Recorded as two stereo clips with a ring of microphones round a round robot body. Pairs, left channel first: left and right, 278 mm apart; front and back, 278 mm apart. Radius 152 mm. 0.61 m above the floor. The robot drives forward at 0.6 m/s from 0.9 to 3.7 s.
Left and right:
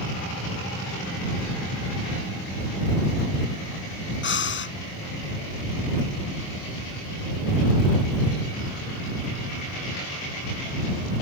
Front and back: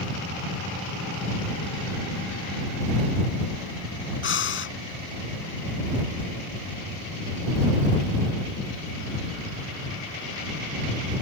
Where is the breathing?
45° left.